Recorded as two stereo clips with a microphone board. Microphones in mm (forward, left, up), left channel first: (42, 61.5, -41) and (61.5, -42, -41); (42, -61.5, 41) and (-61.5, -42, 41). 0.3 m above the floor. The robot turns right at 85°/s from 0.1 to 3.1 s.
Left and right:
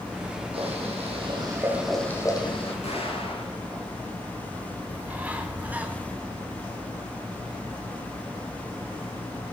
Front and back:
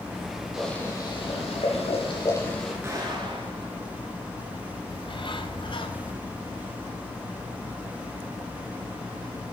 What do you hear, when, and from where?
0.5 s boiling: 105° right, 6 m; by 2.7 s 80° left, 6 m
2.8 s an explosion: 105° left, 6 m; by 3.6 s 125° left, 6 m
4.9 s a bird: 5° right, 2 m